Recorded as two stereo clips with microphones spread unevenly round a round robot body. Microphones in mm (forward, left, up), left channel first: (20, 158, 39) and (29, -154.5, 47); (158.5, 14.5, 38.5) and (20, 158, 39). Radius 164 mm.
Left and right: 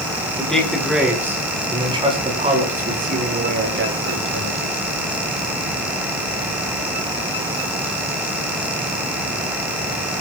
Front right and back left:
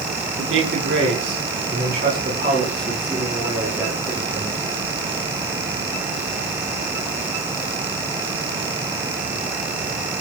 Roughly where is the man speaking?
Behind.